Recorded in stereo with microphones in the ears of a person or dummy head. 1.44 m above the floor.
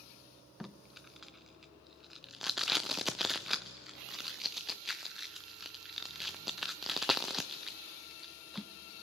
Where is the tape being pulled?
Centre (ahead or behind), 0.5 m.